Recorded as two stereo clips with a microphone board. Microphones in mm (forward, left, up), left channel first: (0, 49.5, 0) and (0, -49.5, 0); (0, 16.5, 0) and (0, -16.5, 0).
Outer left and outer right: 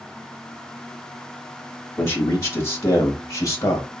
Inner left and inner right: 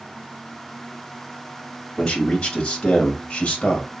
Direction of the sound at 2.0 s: 25° left (ahead or behind).